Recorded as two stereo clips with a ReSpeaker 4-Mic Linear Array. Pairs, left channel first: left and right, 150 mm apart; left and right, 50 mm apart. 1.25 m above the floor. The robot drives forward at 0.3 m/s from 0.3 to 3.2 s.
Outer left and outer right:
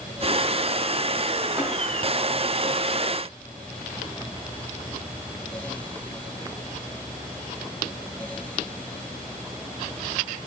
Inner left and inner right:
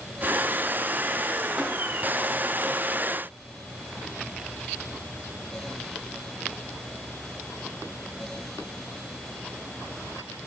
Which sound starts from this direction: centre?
Tapping, at 1.6 s.